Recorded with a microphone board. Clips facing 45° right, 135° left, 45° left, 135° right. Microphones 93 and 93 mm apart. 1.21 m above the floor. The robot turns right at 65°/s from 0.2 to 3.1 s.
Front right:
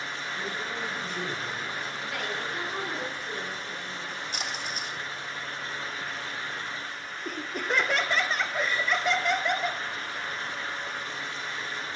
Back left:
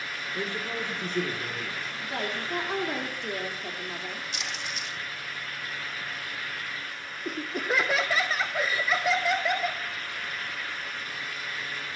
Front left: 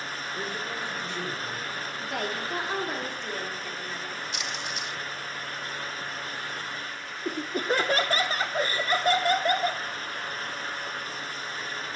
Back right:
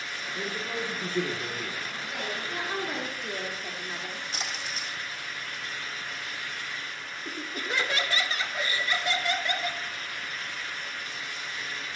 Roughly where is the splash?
Right.